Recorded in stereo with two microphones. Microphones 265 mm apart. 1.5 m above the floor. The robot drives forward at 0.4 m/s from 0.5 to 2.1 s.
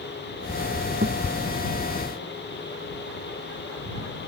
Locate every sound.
1.0 s a thud: 35° right (ahead or behind)